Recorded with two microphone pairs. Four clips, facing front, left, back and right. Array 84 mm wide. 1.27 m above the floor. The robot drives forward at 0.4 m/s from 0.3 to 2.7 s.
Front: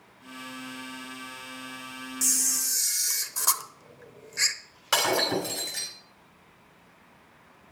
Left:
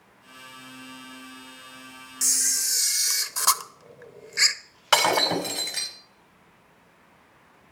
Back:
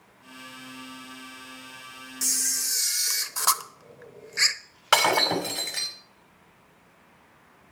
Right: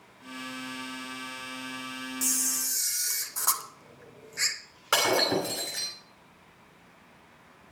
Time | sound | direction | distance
2.2 | a camera shutter | 140° left | 0.6 m
4.9 | breaking glass | 165° left | 3 m